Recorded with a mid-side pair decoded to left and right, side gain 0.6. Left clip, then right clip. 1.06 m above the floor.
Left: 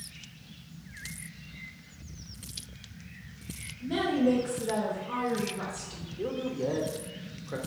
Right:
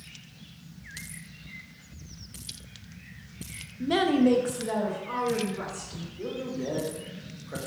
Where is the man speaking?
20° left, 1.0 m.